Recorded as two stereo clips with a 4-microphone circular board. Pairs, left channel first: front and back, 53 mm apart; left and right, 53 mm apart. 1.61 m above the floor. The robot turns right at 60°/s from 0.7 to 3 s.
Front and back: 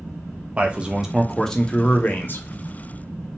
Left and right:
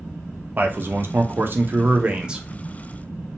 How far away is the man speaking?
About 0.6 m.